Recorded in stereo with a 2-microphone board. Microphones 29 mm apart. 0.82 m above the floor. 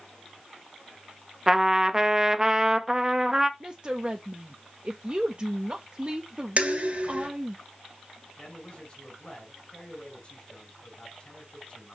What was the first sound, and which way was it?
A trumpet, 15° right (ahead or behind).